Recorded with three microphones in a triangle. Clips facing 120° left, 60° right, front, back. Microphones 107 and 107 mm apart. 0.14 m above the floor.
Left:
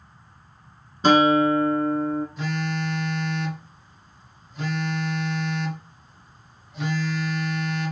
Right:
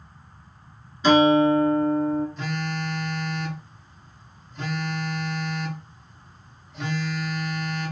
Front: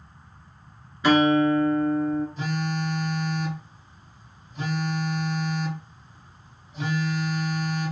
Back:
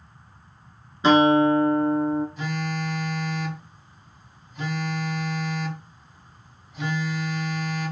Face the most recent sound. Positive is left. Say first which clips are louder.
# left 2 dB, front 1 dB
turn(degrees=45)